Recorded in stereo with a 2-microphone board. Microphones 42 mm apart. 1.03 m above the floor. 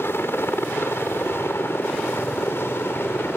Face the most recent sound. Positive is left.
turn(degrees=70)  # may be behind; listen again after turning